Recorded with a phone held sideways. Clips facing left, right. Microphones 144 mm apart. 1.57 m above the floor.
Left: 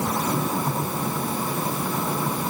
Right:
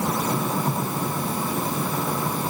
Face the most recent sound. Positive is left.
No sound to turn to.